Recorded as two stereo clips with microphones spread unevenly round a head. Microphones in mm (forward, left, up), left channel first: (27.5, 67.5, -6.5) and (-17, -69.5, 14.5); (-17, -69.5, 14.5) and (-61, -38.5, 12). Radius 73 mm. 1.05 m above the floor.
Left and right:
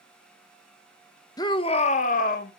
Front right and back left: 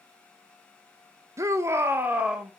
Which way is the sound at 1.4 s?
130° left.